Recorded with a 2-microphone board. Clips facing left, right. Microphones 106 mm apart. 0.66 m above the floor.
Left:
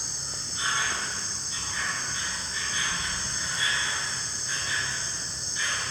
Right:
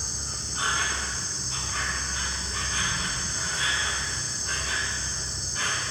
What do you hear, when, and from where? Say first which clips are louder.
0.0 s an insect: right 2 dB; 65° right (ahead or behind), 1.2 m